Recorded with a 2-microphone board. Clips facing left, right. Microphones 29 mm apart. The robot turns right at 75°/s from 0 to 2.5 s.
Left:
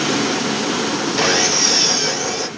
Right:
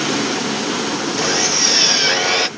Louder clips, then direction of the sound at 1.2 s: Left 2 dB; 150° left.